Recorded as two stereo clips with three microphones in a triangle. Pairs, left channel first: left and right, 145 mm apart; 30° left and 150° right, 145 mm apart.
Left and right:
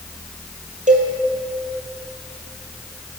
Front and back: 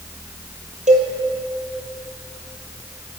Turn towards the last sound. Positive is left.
turn(degrees=-120)